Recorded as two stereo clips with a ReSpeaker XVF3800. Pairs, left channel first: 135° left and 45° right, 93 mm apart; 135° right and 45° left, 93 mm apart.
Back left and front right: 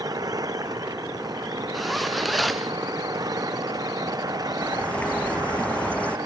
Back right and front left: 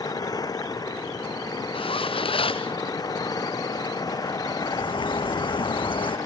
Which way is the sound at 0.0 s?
90° right.